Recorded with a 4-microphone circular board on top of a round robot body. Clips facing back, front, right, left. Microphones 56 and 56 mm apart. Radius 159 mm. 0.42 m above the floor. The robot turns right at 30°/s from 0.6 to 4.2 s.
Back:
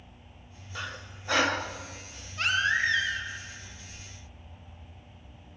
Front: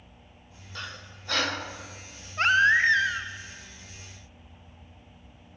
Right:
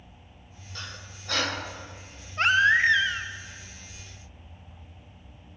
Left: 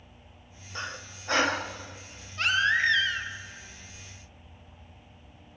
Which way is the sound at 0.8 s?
105° left.